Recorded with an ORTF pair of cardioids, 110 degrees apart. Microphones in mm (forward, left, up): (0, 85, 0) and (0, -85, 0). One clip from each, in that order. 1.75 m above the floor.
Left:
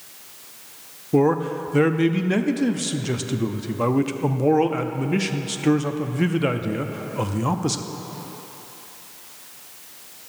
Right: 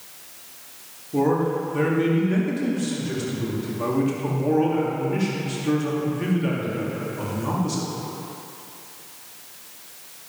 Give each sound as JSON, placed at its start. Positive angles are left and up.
{"t": 1.1, "sound": "a man speaking", "azimuth_deg": 55, "distance_m": 0.6}